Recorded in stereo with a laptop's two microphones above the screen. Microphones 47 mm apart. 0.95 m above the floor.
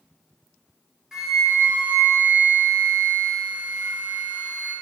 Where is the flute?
15° right (ahead or behind), 1.7 m.